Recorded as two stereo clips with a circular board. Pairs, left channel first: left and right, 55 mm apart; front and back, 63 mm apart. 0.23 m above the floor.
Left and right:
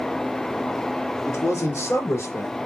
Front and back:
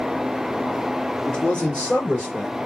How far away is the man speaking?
About 3.5 m.